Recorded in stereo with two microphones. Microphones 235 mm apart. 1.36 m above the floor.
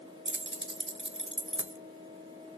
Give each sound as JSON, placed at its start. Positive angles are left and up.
{"t": 0.2, "sound": "keys jangling", "side_deg": -55, "distance_m": 0.7}